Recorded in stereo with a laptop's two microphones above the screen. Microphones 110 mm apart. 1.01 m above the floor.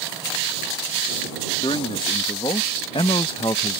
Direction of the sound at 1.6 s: 50° left (ahead or behind).